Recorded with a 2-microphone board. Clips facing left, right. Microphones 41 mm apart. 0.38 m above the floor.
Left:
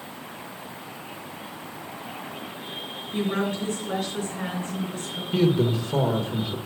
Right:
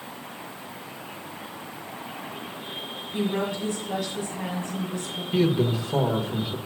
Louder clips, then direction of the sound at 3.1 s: Left 1 dB; 70° left (ahead or behind).